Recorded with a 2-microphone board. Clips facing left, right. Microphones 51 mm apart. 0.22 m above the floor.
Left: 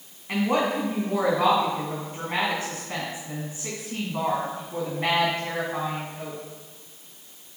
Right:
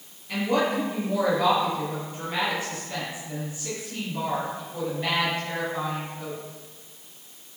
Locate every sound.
0.3 s a woman speaking: 45° left (ahead or behind), 2 m